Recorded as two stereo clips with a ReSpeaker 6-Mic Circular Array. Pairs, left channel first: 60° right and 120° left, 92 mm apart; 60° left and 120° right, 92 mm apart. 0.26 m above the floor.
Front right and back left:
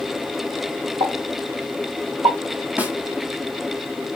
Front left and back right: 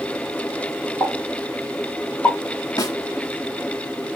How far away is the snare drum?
About 1.1 m.